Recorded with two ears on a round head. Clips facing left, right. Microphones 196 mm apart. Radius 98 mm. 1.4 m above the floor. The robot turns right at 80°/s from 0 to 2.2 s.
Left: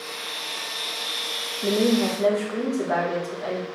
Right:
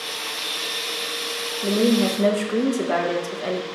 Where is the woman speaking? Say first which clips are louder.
Right 2 dB; 175° left, 1.1 m; by 3.7 s 140° right, 1.1 m.